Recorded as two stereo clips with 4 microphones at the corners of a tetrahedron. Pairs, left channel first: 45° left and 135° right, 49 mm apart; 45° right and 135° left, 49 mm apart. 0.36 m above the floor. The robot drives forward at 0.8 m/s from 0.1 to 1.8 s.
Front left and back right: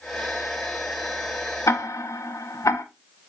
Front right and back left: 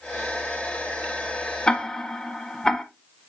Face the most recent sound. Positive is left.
turn(degrees=30)